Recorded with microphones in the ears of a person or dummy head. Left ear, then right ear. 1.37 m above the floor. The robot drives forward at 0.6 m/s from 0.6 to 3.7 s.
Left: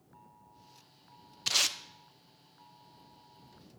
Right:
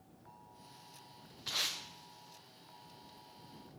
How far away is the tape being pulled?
About 0.6 m.